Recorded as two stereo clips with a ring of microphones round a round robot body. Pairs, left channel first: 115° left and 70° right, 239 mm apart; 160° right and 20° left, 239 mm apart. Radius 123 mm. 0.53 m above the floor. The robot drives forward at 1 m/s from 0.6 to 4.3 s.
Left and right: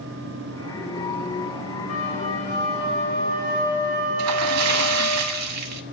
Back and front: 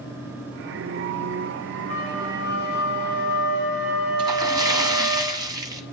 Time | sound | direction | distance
1.9 | a flute | 165° left | 4.5 m
4.2 | a splash | 45° right | 0.8 m